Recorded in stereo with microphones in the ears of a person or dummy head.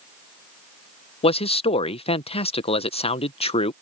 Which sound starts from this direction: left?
A man speaking, at 1.2 s.